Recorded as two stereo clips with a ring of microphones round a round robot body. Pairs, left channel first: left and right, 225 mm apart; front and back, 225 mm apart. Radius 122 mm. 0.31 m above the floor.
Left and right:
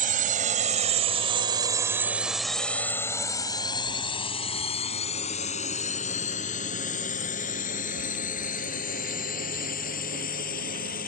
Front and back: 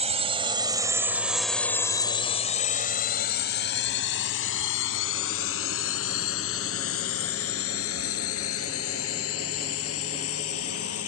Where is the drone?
130° right; by 11.1 s 35° left.